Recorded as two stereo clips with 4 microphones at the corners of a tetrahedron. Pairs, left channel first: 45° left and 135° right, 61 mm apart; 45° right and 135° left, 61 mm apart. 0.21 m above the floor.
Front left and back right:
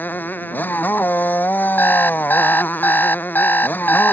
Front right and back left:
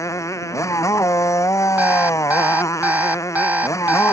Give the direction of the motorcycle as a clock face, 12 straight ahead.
12 o'clock.